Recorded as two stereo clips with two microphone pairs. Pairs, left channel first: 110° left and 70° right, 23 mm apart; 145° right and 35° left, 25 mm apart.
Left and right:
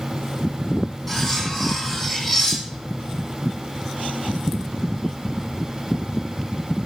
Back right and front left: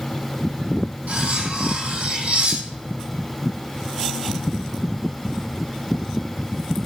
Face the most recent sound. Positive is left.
turn(degrees=35)